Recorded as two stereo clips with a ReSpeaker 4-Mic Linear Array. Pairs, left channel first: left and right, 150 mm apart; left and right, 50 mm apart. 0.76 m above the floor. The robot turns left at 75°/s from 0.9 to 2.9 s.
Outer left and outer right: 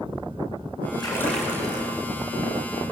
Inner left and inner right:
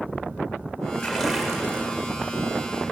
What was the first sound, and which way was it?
A splash, 30° left.